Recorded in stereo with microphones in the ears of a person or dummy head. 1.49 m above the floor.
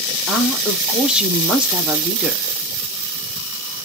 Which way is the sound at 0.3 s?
5° right (ahead or behind).